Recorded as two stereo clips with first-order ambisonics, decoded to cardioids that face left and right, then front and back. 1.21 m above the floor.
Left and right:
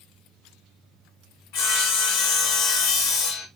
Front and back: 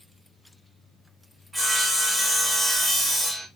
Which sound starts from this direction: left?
Sawing, at 1.5 s.